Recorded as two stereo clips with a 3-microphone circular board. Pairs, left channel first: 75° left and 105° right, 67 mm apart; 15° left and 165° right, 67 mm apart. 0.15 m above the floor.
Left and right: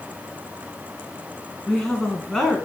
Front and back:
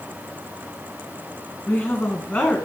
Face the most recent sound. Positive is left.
turn(degrees=5)